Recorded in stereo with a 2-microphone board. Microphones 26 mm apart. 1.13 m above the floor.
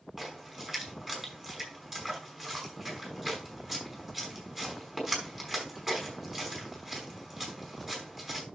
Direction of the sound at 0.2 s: 10° right (ahead or behind).